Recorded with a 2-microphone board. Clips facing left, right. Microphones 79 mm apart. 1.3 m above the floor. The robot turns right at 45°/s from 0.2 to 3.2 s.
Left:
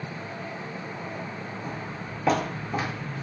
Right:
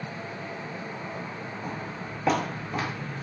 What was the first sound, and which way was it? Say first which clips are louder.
Footsteps: even; 30° right (ahead or behind).